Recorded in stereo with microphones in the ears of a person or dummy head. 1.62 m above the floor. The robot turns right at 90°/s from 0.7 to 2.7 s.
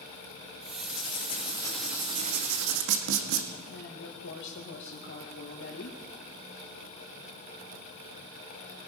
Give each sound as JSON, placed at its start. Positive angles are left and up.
{"t": 0.8, "sound": "writing", "azimuth_deg": 90, "distance_m": 1.8}
{"t": 3.7, "sound": "a woman speaking", "side_deg": 70, "distance_m": 1.9}